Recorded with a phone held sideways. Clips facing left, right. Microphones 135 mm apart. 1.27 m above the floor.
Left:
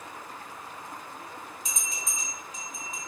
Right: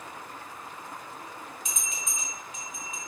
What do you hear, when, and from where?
1.6 s a bell: 35° left (ahead or behind), 0.9 m